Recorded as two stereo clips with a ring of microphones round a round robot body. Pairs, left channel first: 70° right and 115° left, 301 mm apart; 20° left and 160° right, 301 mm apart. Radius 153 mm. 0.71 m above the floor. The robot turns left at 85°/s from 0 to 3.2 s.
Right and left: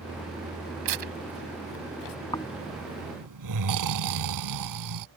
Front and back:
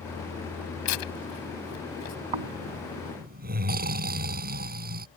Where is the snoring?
145° right; by 5.1 s 140° left.